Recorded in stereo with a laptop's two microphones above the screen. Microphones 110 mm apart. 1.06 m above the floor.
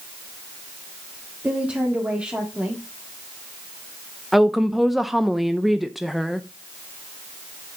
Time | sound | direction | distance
1.4 | a woman speaking | 10° right (ahead or behind) | 2 m
4.3 | a woman speaking | centre (ahead or behind) | 0.6 m